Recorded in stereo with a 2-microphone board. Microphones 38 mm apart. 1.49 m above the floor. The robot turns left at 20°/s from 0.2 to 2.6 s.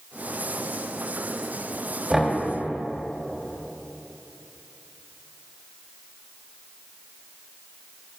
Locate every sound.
2.1 s knocking: 15° right (ahead or behind), 2 m; by 2.4 s 25° right (ahead or behind), 2 m